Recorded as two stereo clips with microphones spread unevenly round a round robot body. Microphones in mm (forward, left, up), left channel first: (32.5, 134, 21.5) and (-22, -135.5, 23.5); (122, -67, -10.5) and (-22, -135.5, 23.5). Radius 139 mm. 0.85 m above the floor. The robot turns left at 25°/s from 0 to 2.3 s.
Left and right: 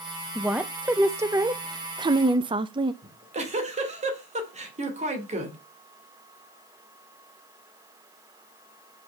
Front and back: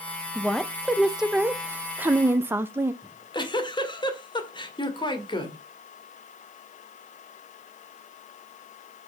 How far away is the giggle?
About 2.5 m.